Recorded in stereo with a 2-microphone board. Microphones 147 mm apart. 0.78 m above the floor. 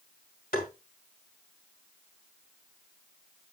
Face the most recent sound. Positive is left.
turn(degrees=80)